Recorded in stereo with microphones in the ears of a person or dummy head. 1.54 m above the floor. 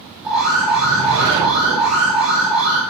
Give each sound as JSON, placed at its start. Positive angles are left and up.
{"t": 0.2, "sound": "an alarm", "side_deg": -5, "distance_m": 1.0}